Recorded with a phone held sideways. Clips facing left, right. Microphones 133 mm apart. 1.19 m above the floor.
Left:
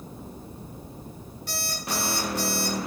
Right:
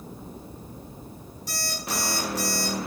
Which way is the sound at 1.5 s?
70° left (ahead or behind).